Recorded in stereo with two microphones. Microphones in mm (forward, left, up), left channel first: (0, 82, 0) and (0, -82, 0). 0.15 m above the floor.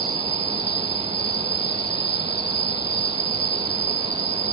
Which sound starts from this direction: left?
An insect, at 0.0 s.